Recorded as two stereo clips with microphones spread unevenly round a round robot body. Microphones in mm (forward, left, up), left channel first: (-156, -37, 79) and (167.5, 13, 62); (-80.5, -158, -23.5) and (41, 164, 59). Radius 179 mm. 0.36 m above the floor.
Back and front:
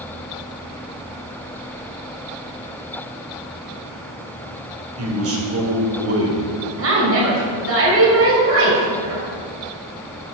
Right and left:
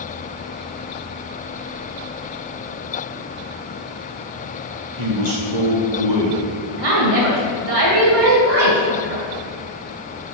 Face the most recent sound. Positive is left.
turn(degrees=50)